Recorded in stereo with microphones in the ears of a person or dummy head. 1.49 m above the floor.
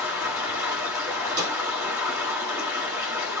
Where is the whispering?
I don't hear whispering.